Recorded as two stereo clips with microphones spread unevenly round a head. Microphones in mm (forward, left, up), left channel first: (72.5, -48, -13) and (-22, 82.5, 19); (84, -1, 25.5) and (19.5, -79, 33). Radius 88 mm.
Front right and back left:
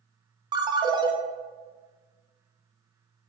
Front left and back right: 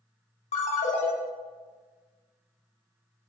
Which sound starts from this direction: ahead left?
A ringtone, at 0.5 s.